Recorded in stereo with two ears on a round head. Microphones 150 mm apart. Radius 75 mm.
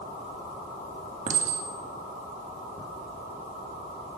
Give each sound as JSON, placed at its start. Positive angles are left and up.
{"t": 1.3, "sound": "a clink", "side_deg": -45, "distance_m": 2.5}